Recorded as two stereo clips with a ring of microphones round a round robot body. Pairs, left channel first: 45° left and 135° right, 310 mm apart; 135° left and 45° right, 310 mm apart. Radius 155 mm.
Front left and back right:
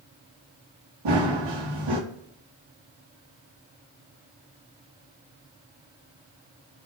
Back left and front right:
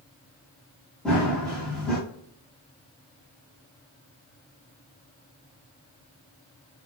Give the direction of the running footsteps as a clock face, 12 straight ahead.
5 o'clock.